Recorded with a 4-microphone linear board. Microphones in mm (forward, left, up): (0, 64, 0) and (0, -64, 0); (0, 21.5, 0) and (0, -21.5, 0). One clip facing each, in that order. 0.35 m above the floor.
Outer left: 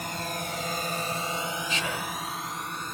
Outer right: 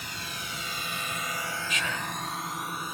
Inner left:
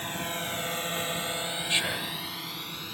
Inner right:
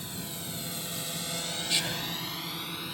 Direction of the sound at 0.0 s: 50° left (ahead or behind).